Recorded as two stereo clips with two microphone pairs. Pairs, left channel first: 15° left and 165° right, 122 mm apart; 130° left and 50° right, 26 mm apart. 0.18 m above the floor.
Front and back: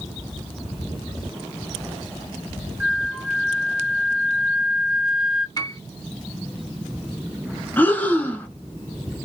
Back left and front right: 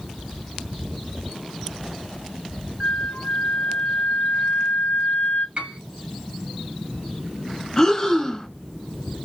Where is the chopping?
No chopping in this recording.